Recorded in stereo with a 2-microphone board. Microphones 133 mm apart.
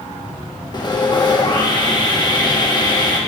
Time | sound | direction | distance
0.7 | sawing | 30° left (ahead or behind) | 0.9 m